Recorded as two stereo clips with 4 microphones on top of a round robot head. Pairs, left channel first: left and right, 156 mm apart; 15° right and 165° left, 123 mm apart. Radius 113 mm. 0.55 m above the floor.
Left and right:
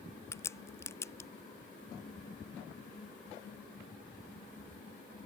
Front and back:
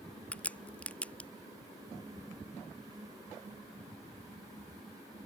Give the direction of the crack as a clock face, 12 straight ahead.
10 o'clock.